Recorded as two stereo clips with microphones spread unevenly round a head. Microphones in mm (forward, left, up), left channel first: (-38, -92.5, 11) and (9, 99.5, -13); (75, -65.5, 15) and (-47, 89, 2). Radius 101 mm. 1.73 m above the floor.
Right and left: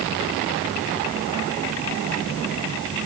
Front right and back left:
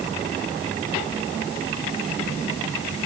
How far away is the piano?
I don't hear a piano.